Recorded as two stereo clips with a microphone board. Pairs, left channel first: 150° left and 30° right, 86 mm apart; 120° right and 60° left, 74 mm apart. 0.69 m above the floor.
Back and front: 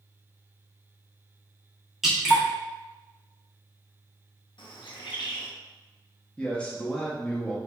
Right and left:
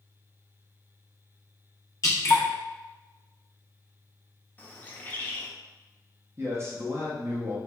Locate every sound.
2.0 s dripping: 115° right, 1.3 m
4.6 s a bird: 175° left, 0.7 m
6.4 s a man speaking: 80° left, 0.7 m